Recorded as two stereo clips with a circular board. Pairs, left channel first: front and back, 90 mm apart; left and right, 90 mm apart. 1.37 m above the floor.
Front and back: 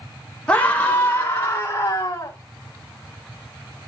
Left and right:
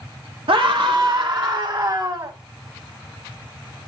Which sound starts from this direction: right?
A scream, at 0.5 s.